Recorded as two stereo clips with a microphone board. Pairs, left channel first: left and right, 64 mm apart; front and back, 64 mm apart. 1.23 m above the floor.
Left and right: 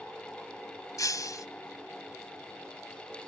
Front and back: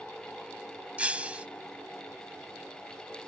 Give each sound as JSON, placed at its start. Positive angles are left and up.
{"t": 1.0, "sound": "breaking glass", "azimuth_deg": 110}